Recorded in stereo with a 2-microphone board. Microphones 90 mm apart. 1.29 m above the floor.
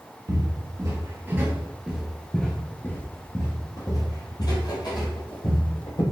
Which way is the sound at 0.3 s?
45° right (ahead or behind).